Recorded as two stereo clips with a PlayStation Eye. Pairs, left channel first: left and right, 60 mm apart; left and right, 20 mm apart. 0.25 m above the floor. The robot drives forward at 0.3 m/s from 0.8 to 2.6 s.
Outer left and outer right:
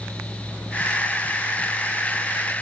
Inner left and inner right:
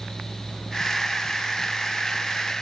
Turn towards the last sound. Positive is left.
No sound to turn to.